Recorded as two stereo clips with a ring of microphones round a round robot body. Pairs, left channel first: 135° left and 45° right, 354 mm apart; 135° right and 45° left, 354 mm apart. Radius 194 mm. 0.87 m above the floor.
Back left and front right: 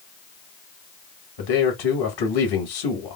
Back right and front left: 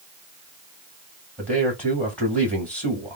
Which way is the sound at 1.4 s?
140° left.